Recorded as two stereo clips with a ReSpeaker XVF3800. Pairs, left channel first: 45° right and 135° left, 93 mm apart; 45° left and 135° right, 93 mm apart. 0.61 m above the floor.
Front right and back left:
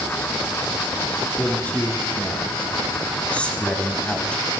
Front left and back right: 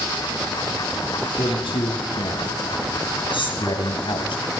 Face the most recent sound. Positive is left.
turn(degrees=35)